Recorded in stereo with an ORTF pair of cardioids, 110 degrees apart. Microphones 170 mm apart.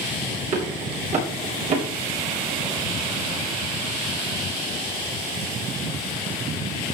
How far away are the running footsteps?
About 8 m.